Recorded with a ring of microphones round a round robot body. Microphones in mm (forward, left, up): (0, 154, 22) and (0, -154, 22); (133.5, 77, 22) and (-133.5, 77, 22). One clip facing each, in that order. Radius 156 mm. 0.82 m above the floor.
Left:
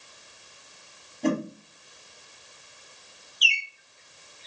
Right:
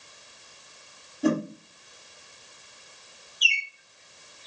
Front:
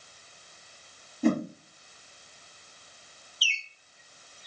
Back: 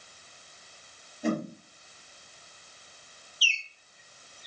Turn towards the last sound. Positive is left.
turn(degrees=60)